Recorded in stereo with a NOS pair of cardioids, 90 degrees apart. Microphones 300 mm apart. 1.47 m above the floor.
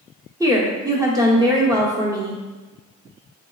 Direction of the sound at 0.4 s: 10° right.